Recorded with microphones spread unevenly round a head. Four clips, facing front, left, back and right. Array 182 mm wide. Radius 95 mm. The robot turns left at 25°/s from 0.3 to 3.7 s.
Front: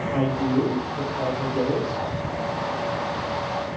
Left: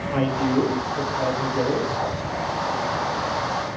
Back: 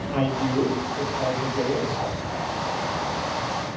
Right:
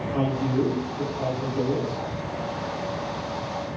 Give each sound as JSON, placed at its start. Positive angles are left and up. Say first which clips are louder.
{"t": 0.1, "sound": "a man speaking", "louder": "left 4 dB, front 1 dB", "azimuth_deg": 95, "distance_m": 1.6}